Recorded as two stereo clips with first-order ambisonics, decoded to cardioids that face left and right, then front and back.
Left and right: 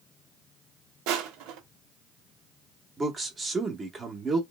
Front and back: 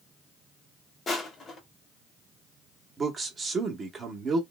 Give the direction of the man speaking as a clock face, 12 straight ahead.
5 o'clock.